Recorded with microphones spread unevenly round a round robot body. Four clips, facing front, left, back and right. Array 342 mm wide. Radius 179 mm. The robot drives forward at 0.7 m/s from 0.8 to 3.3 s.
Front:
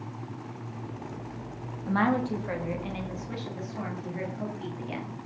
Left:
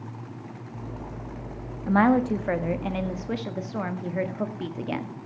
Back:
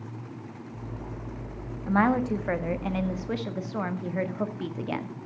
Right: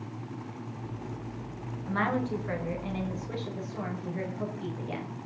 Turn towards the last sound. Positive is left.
turn(degrees=120)